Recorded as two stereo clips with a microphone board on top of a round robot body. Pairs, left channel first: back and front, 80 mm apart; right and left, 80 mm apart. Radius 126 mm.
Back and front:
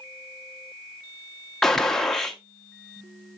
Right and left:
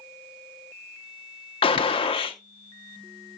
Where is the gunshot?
95° right, 1.1 m.